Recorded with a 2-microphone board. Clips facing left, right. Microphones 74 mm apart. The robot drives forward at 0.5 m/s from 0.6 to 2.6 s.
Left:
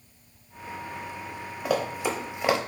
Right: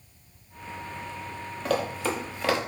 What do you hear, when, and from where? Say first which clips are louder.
1.6 s running footsteps: even; 10° left (ahead or behind), 0.9 m; by 2.6 s 15° left (ahead or behind), 0.6 m